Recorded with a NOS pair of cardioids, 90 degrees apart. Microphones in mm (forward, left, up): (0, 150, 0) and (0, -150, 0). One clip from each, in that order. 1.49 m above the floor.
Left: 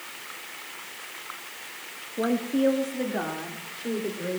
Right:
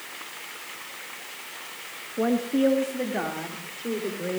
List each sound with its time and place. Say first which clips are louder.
2.2 s a woman speaking: right 2 dB; 5° right, 1.5 m